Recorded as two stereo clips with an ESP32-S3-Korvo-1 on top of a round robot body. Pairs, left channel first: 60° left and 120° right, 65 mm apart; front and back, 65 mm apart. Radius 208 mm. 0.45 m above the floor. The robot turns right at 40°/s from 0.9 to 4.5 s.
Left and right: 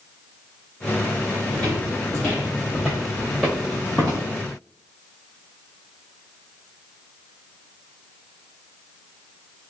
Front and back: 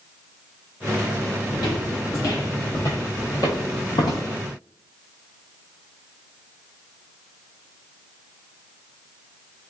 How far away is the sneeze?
I don't hear a sneeze.